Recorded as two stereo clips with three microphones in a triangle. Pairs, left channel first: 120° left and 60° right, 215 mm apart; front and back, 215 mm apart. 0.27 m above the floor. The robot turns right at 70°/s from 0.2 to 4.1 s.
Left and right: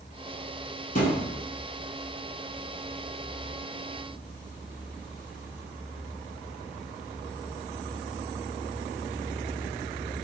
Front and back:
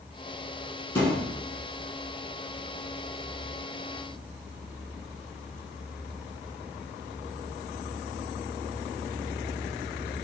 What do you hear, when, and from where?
0.9 s a thud: 75° left, 1.2 m; by 1.3 s 100° left, 1.2 m